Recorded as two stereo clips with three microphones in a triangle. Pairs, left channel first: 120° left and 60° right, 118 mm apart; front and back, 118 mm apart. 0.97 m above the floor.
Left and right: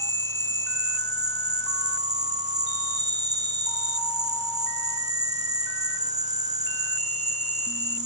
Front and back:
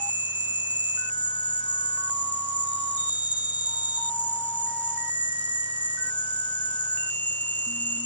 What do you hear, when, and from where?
0.0 s an insect: 75° right, 1.2 m